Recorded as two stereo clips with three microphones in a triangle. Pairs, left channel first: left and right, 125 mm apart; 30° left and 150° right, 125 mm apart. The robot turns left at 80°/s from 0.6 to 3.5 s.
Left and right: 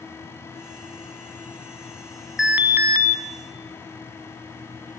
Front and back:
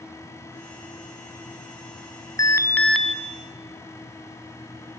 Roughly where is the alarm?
Ahead.